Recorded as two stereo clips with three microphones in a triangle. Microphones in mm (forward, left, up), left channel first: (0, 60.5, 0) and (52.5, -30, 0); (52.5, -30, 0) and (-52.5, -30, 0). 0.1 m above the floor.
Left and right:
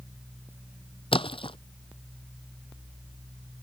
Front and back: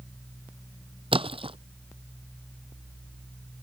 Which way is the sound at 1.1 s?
150° left.